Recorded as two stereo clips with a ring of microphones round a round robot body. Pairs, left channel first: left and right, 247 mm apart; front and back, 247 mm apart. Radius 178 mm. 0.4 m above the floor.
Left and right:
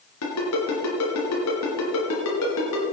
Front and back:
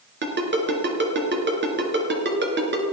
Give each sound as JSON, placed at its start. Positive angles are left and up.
{"t": 0.2, "sound": "a ringtone", "azimuth_deg": 135, "distance_m": 3.0}